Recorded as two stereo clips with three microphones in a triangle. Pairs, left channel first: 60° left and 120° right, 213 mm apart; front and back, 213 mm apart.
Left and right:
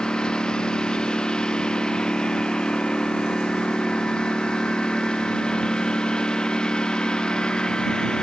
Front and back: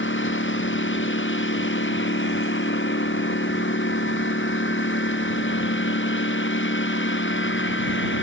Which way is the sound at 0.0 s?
25° right.